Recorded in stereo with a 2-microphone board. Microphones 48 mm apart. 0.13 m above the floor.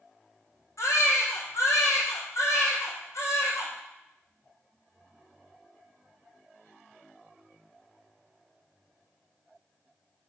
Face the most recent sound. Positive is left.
turn(degrees=80)